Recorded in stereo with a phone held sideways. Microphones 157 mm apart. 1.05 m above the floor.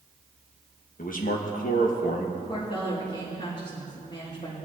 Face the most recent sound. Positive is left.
turn(degrees=45)  # may be behind; listen again after turning